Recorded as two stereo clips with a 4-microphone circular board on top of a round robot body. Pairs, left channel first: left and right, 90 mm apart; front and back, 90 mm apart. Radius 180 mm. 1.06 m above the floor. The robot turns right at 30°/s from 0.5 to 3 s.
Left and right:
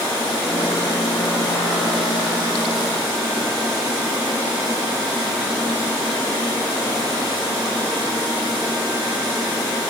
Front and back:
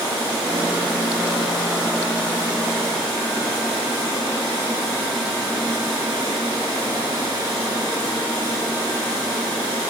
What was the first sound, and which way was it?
Only background noise.